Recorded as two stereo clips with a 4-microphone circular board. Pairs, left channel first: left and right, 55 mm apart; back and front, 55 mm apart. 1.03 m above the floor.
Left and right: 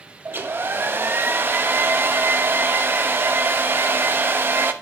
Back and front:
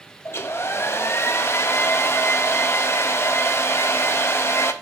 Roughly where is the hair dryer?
Behind right.